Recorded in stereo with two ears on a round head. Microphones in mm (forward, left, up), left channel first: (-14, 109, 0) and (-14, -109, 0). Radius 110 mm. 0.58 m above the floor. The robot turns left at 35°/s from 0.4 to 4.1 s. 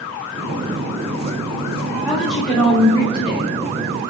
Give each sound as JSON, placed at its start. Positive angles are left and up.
{"t": 2.0, "sound": "a woman speaking", "azimuth_deg": -170, "distance_m": 3.0}